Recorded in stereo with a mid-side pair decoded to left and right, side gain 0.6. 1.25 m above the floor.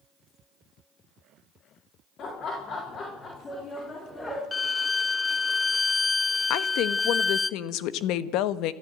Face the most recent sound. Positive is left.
turn(degrees=70)